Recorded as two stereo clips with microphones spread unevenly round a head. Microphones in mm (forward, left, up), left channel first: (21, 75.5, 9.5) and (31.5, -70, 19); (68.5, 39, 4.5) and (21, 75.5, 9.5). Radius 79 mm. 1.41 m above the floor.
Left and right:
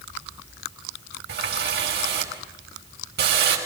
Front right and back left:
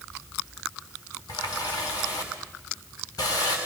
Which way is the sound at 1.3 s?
90° right.